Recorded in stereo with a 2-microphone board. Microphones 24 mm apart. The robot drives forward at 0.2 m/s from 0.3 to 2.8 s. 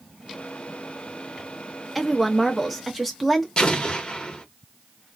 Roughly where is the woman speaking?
Centre.